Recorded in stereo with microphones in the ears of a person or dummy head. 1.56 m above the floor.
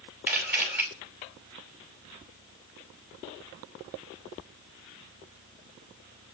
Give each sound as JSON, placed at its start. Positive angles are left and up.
{"t": 0.3, "sound": "a camera shutter", "side_deg": -10, "distance_m": 4.5}